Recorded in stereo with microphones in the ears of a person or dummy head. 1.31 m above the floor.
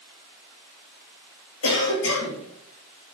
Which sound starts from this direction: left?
A cough, at 1.6 s.